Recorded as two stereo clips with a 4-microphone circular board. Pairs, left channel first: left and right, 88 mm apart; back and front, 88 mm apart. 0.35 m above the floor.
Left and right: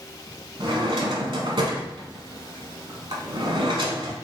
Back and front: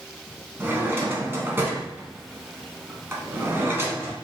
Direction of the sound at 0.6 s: 65° right.